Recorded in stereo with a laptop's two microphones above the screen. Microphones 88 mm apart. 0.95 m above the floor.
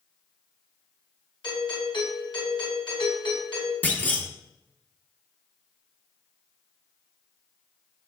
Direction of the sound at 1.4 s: 70° left (ahead or behind).